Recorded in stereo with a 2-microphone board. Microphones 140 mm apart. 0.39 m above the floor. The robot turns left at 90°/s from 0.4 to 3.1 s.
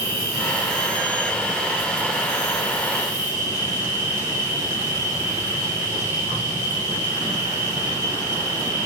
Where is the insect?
40° right, 4 m; by 8.9 s 75° left, 4 m.